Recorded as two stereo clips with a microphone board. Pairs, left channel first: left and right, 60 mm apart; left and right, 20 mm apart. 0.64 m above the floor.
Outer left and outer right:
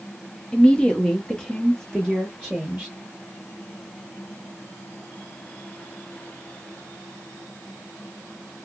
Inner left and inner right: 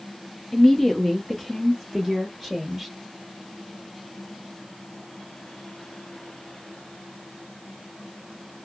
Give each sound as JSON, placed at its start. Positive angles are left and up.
{"t": 0.5, "sound": "a woman speaking", "side_deg": 15, "distance_m": 0.8}